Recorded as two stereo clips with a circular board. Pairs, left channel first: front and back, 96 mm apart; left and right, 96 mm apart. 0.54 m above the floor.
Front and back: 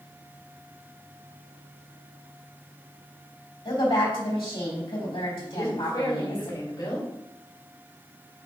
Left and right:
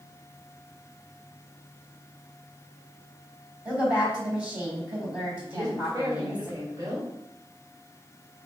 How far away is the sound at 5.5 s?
About 3 m.